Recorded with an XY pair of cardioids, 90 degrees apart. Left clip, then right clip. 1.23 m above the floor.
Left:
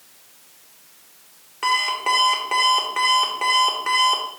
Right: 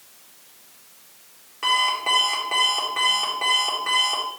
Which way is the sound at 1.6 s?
25° left.